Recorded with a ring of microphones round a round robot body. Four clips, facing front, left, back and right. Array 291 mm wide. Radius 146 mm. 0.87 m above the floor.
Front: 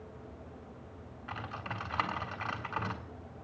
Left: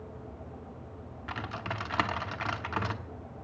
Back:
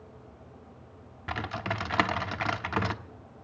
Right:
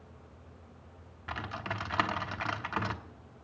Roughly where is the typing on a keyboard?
Behind.